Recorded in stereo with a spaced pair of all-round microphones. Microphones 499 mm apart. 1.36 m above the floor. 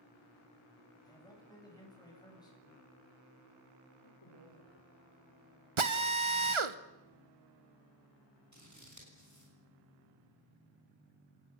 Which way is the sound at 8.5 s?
35° right (ahead or behind).